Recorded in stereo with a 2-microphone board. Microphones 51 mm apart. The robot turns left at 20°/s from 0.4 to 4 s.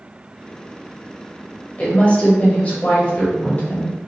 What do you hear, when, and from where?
1.8 s a woman speaking: 25° left (ahead or behind), 1.0 m